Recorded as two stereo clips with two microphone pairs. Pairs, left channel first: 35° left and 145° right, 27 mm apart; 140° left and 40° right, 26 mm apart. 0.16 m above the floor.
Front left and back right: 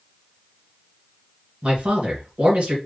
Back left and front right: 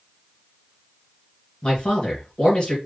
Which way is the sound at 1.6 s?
Straight behind.